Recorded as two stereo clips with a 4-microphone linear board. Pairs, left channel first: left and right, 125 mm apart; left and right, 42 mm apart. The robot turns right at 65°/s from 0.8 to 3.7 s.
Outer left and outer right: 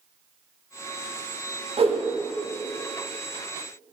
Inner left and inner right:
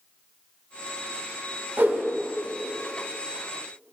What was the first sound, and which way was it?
A whoosh, 50° right (ahead or behind).